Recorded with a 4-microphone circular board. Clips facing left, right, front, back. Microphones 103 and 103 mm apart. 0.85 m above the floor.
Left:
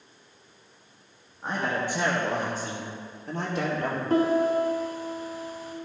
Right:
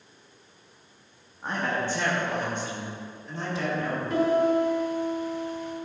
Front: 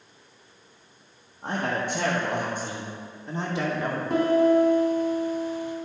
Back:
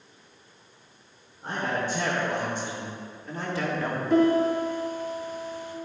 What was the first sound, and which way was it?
A man speaking, straight ahead.